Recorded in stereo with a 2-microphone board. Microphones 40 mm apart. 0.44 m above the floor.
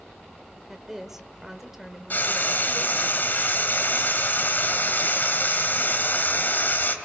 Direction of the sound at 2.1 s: 50° left (ahead or behind).